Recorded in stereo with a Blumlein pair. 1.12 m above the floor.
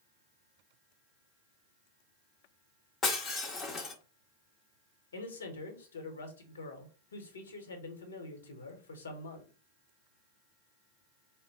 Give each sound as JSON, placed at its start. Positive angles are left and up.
{"t": 3.0, "sound": "breaking glass", "azimuth_deg": 25, "distance_m": 0.9}
{"t": 5.1, "sound": "a man speaking", "azimuth_deg": 65, "distance_m": 1.2}